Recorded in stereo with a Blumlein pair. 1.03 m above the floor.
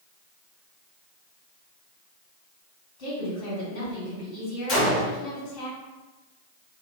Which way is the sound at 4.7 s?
30° left.